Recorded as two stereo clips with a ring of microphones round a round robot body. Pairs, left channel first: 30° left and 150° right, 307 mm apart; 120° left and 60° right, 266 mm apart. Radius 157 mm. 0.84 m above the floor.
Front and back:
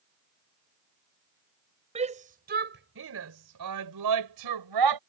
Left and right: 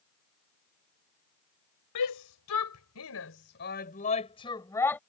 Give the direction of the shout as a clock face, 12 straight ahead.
7 o'clock.